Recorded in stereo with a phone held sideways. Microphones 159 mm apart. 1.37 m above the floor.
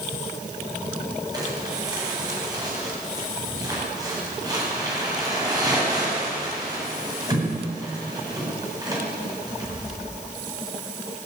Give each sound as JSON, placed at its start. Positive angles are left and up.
{"t": 1.3, "sound": "crumpling", "side_deg": -25, "distance_m": 9.0}